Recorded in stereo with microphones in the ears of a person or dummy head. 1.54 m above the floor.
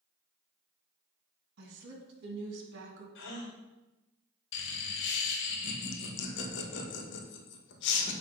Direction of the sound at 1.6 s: 60° right (ahead or behind).